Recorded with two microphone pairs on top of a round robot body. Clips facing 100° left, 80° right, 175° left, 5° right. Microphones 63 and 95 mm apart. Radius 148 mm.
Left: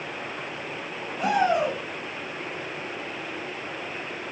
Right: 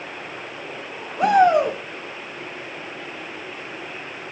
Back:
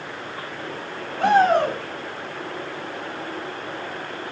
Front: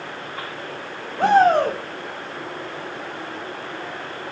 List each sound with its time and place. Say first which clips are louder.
1.2 s a shout: right 7 dB, front 2 dB; 55° right, 1.6 m